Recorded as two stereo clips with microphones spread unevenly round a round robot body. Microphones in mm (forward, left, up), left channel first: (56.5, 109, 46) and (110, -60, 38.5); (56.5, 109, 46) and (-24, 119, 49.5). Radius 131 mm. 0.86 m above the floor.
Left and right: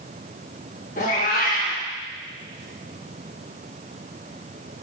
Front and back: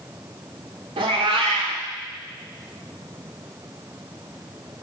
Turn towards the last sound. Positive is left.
turn(degrees=170)